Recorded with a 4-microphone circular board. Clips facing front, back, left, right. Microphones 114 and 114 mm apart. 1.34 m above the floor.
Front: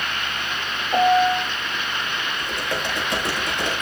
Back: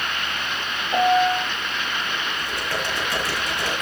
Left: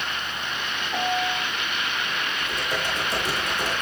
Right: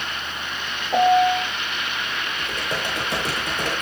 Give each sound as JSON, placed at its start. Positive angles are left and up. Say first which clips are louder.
{"t": 0.9, "sound": "a piano", "louder": "front 1 dB, right 11 dB", "azimuth_deg": -80, "distance_m": 1.8}
{"t": 2.4, "sound": "typing on a keyboard", "louder": "front 1 dB, right 2 dB", "azimuth_deg": -70, "distance_m": 8.5}